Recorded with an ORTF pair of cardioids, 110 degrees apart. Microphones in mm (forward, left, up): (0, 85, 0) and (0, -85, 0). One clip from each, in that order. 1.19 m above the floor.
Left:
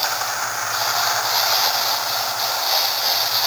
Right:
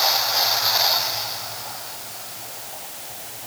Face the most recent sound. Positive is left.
No sound to turn to.